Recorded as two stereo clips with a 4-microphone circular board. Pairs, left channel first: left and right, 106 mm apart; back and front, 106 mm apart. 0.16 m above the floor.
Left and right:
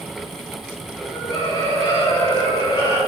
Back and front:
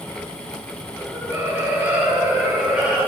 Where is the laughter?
50° left, 2.5 m; by 3.0 s 80° left, 2.5 m.